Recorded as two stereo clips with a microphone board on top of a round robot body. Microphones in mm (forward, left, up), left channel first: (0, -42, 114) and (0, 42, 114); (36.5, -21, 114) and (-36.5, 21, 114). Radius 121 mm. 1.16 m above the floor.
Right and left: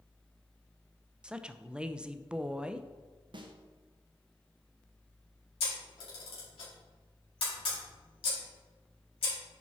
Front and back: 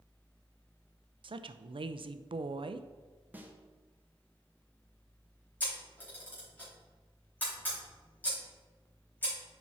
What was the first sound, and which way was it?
A woman speaking, 170° left.